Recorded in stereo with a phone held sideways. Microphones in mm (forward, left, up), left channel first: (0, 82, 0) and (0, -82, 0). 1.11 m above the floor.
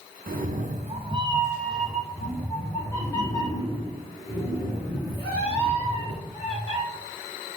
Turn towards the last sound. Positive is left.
turn(degrees=35)  # may be behind; listen again after turning